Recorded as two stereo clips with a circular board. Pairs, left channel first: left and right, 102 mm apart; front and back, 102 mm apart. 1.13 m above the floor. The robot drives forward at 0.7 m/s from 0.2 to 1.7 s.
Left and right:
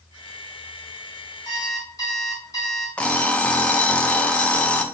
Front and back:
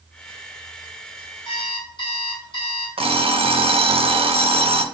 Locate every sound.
1.4 s an alarm clock: 35° left, 3 m
3.0 s an alarm clock: 165° left, 0.8 m